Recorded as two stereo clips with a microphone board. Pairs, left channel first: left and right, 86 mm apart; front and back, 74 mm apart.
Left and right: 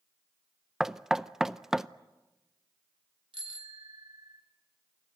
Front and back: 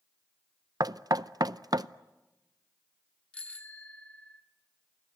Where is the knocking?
175° right, 0.5 m.